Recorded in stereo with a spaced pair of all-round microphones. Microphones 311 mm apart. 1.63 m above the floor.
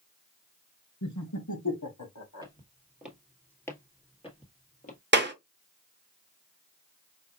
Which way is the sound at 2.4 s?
15° right (ahead or behind).